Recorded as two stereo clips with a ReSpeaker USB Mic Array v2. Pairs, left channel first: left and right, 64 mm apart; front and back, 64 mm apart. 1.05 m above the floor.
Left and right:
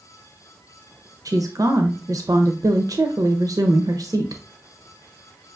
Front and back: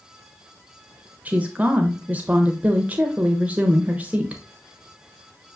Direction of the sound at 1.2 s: 110° right.